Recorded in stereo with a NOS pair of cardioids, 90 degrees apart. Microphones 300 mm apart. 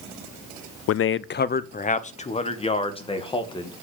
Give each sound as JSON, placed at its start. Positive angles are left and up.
{"t": 0.9, "sound": "a man speaking", "azimuth_deg": 55, "distance_m": 0.6}